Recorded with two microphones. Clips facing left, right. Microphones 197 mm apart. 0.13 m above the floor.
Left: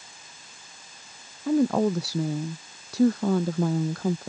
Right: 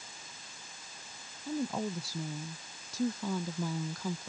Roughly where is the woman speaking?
Left.